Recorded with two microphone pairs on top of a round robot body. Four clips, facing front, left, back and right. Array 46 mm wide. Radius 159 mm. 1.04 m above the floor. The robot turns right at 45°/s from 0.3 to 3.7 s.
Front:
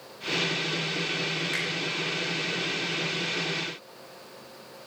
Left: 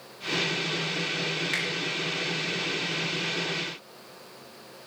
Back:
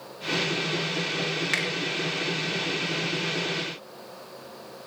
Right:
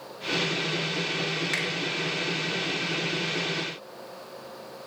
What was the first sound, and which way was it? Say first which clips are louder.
A finger snap: even, back 6 dB; 175° right.